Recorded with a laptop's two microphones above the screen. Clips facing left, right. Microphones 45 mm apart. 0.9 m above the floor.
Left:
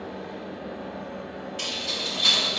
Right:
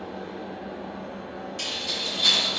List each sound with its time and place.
0.0 s a fan: 50° left (ahead or behind), 1.0 m
1.6 s keys jangling: 20° left (ahead or behind), 1.2 m